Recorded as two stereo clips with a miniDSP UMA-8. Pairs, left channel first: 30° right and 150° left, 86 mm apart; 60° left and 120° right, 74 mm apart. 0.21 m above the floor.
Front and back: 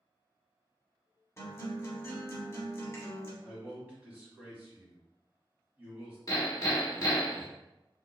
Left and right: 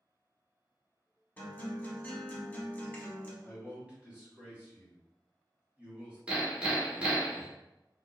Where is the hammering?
50° right, 1.0 m.